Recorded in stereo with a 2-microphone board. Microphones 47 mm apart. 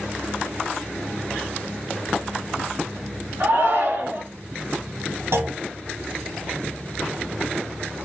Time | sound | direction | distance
3.4 | a shout | 60° right (ahead or behind) | 1.8 m
5.3 | a clunk | 70° right (ahead or behind) | 0.7 m